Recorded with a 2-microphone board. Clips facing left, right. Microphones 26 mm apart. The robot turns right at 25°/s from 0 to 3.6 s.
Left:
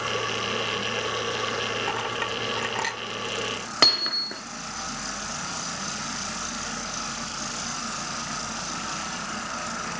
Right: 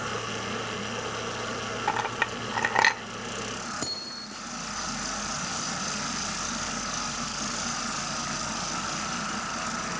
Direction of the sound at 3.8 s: 80° left.